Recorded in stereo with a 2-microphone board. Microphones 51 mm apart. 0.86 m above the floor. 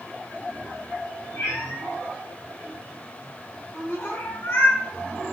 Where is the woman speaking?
50° left (ahead or behind), 3.5 m.